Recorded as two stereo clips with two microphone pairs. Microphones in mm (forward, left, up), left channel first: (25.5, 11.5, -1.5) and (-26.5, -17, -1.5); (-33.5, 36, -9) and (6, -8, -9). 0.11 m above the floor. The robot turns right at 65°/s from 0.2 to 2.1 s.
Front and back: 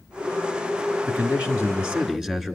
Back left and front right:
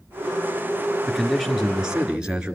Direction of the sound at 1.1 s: 155° right.